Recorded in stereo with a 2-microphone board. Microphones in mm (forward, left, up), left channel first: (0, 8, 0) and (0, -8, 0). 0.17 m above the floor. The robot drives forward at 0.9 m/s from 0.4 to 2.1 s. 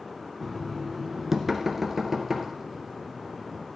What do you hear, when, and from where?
0.4 s knocking: 25° right (ahead or behind), 0.9 m; by 3.6 s 10° right (ahead or behind), 2 m